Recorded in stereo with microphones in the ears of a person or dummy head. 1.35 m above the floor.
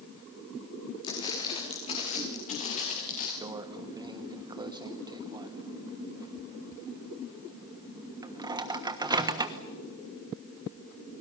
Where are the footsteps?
25° left (ahead or behind), 5.5 m; by 3.3 s 35° left (ahead or behind), 8.5 m.